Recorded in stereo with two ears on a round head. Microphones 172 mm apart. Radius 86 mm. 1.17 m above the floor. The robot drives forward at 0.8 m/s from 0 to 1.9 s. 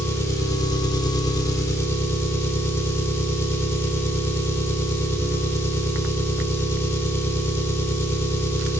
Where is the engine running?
15° left (ahead or behind), 1.1 m.